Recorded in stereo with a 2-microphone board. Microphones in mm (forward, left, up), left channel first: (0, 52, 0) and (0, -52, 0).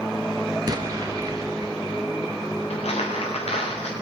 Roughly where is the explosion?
Right.